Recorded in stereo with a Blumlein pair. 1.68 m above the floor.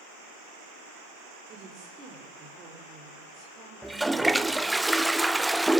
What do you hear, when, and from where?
1.5 s a woman speaking: 35° right, 5 m
3.8 s a toilet flushing: 5° right, 0.9 m